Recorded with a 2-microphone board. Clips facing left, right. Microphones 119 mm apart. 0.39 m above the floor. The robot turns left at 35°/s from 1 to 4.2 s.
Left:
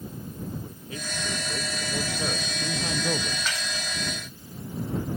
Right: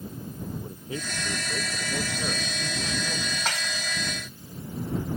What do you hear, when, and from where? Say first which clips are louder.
0.6 s a man speaking: right 3 dB; 150° right; by 3.4 s 125° left
3.5 s dishes clattering: right 1 dB; 65° right (ahead or behind)